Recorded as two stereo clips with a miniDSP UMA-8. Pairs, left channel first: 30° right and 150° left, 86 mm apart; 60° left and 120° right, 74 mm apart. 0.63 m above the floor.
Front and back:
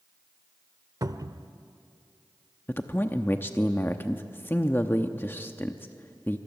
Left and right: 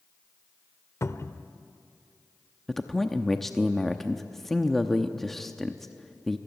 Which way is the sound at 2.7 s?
25° right.